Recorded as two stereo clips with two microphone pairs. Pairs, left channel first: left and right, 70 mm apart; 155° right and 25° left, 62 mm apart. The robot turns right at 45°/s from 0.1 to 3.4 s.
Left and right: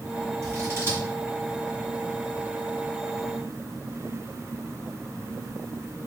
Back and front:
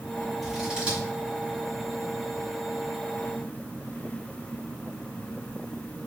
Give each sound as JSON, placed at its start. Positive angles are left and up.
{"t": 0.4, "sound": "scissors", "azimuth_deg": -60, "distance_m": 1.9}